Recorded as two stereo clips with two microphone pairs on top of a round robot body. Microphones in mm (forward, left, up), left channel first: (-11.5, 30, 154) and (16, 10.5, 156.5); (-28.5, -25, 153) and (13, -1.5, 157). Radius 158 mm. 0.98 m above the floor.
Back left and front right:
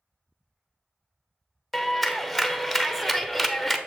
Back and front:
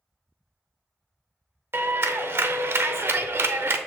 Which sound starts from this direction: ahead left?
A clap, at 1.7 s.